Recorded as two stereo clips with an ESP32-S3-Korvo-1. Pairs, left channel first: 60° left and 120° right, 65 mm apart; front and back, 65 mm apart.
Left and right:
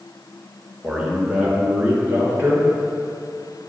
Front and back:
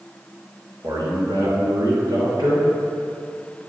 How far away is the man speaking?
About 3.5 m.